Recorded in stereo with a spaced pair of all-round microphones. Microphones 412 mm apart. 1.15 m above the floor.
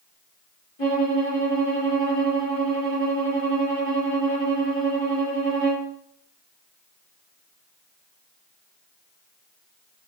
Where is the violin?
65° left (ahead or behind), 2.5 m.